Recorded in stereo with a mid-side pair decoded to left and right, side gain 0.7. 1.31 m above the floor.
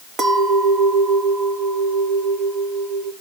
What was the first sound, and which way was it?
A clink, 30° right.